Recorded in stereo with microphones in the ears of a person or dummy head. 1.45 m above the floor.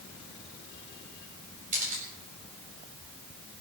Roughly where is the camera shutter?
Right.